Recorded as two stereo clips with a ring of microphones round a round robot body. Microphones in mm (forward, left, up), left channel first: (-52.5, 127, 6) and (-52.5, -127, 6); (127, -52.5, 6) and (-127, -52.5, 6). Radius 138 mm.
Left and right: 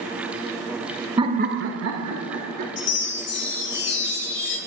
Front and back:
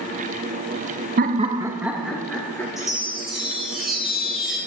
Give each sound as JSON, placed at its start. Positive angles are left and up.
{"t": 1.2, "sound": "laughter", "azimuth_deg": -155, "distance_m": 0.9}
{"t": 2.8, "sound": "a chime", "azimuth_deg": 90, "distance_m": 1.8}